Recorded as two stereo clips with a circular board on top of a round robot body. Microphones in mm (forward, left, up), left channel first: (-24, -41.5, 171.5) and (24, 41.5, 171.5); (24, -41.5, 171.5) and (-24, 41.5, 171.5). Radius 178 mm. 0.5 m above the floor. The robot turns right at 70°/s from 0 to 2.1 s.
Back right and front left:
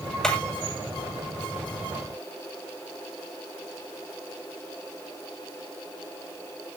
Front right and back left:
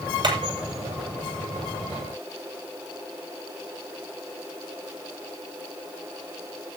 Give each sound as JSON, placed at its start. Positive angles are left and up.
{"t": 0.2, "sound": "hammering", "azimuth_deg": 155, "distance_m": 8.0}